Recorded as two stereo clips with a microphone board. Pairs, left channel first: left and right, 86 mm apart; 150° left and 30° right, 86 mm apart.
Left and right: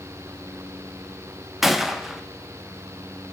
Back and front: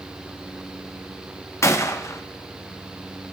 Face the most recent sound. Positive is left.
turn(degrees=-175)